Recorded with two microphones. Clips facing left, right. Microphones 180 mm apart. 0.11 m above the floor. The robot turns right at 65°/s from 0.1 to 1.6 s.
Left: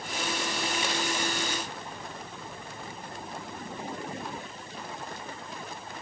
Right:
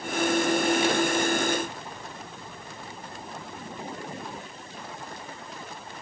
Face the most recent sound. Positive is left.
No sound to turn to.